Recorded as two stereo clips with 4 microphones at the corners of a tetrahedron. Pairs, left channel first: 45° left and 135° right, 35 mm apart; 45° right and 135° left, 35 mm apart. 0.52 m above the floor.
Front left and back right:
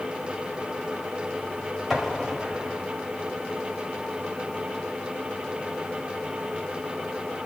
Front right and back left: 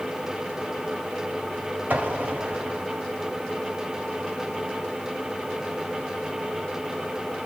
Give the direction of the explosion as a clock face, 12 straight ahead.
7 o'clock.